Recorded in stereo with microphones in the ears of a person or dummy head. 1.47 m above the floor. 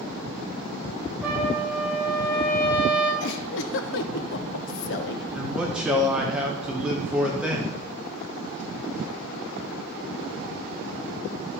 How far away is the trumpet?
About 2.5 m.